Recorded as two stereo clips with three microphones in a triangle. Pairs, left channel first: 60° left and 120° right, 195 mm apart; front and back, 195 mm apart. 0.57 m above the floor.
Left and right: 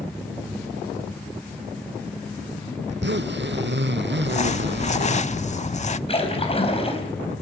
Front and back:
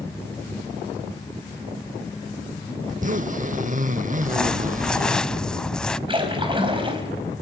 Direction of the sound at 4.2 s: 85° left.